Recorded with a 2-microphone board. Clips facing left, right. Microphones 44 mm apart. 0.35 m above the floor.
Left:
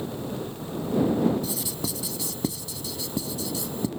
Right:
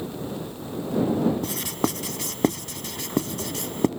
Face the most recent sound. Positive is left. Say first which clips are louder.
# right 5 dB
turn(degrees=-60)  # may be behind; listen again after turning